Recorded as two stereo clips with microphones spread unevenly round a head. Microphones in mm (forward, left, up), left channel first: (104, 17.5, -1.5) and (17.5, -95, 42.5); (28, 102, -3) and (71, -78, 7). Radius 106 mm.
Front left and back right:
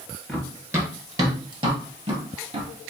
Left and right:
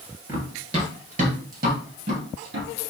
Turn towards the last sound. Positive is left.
turn(degrees=-100)